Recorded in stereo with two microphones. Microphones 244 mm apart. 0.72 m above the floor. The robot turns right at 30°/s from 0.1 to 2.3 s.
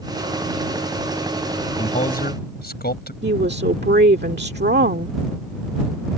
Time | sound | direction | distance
1.8 | a man speaking | 25° left (ahead or behind) | ?
3.2 | a woman speaking | 45° right (ahead or behind) | ?